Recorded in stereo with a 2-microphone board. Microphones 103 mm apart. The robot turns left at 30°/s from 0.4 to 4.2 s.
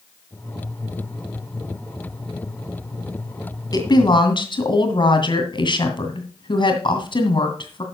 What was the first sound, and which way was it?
A woman speaking, 40° left (ahead or behind).